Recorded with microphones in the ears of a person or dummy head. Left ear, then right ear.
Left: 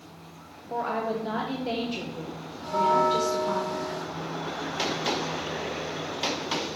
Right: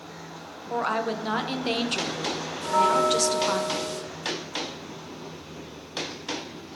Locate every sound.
0.7 s a woman speaking: 45° right (ahead or behind), 0.8 m
2.6 s a bell: 65° right (ahead or behind), 1.0 m